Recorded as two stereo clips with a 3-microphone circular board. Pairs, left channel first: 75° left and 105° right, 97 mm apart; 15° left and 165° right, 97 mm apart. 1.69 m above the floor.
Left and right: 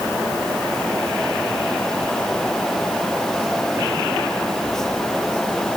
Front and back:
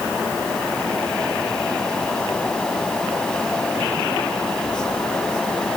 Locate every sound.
Only background noise.